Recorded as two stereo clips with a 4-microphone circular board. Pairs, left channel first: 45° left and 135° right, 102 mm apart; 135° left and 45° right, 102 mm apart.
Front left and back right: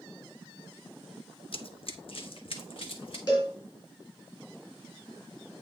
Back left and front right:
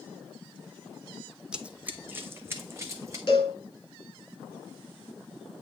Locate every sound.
1.5 s running footsteps: 35° left, 0.7 m; by 3.2 s 15° left, 1.4 m
3.3 s a cowbell: 90° left, 4.5 m